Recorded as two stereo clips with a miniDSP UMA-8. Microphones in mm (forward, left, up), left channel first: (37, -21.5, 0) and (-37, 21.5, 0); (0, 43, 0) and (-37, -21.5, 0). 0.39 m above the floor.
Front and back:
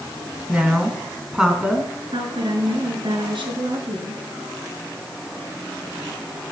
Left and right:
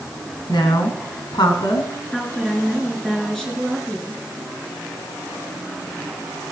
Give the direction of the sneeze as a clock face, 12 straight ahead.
No sneeze in this recording.